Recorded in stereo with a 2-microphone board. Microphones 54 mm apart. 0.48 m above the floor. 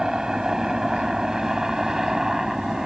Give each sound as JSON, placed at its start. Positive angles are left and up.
{"t": 0.0, "sound": "a helicopter", "side_deg": -10}